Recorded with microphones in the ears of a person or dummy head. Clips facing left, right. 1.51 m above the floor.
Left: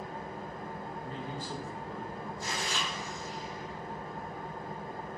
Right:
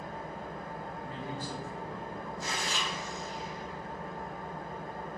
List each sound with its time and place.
0.0 s an engine running: 35° left (ahead or behind), 1.1 m
1.0 s a man speaking: 10° right (ahead or behind), 0.8 m
2.5 s chewing: 80° right, 1.2 m